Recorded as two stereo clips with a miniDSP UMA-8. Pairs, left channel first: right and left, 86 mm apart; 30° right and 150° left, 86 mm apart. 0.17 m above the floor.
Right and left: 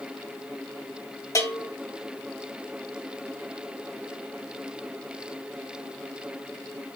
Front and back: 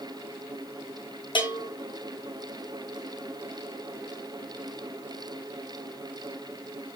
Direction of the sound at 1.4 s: 40° right.